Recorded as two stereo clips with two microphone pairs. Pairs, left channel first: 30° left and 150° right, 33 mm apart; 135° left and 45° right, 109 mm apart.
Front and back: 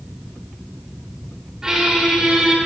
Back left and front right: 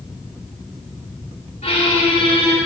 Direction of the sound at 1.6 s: 140° left.